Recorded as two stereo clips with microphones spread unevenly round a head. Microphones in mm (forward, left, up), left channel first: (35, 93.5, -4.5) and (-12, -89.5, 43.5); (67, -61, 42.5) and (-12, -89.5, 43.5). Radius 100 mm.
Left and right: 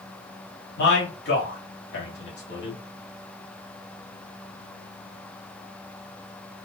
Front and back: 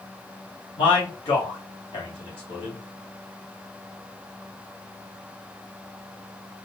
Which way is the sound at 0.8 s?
45° left.